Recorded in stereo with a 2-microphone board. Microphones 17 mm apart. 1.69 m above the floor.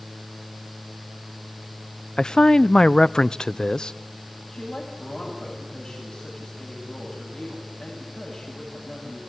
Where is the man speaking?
55° left (ahead or behind), 0.5 m.